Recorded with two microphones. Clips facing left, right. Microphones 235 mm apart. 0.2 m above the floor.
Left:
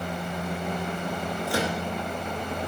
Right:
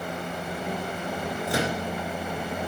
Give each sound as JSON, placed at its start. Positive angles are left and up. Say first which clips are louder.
{"t": 1.5, "sound": "a microwave", "louder": "right 1 dB", "side_deg": -20, "distance_m": 2.5}